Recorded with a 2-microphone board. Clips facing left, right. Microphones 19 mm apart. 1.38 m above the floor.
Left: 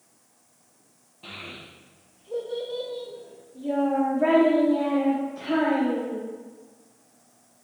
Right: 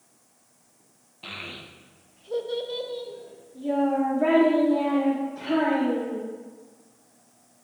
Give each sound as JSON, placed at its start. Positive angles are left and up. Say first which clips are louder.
{"t": 1.2, "sound": "a child speaking", "louder": "right 2 dB", "side_deg": -30, "distance_m": 0.7}